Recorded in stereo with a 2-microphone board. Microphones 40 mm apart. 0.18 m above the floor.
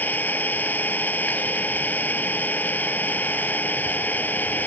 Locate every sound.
0.0 s an engine running: 45° left (ahead or behind)